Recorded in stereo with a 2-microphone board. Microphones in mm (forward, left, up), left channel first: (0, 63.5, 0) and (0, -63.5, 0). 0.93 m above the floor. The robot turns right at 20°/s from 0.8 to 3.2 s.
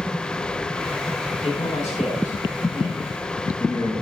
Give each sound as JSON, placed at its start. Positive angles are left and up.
{"t": 1.4, "sound": "a man speaking", "azimuth_deg": 60, "distance_m": 7.5}